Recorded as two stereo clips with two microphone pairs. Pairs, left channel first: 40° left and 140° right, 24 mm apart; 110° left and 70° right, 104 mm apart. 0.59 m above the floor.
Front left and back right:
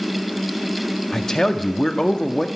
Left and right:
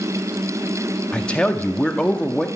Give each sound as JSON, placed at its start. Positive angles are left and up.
{"t": 1.1, "sound": "a man speaking", "azimuth_deg": 30, "distance_m": 0.7}